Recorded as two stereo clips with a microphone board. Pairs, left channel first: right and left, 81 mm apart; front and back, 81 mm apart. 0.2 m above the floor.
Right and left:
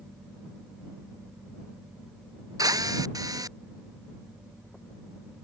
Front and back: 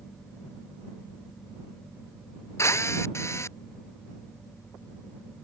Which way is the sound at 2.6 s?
50° left.